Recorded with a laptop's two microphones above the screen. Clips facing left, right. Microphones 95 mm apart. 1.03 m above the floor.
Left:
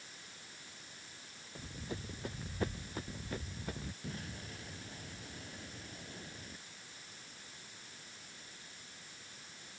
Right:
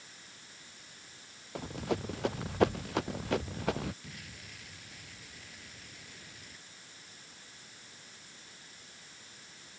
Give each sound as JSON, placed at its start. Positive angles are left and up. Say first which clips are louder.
{"t": 1.6, "sound": "running footsteps", "louder": "right 11 dB", "side_deg": -75}
{"t": 4.0, "sound": "an explosion", "louder": "left 5 dB", "side_deg": 30}